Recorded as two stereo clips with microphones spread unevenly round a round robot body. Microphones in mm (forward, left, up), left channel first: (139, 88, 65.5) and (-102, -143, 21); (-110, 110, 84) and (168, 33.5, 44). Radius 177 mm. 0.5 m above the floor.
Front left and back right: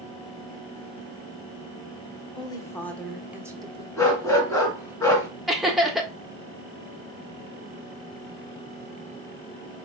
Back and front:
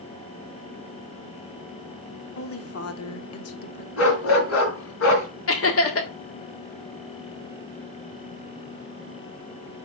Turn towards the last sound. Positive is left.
turn(degrees=145)